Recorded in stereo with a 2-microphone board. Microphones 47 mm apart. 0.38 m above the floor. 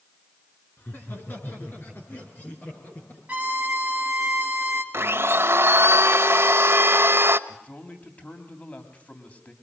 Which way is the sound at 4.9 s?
60° right (ahead or behind).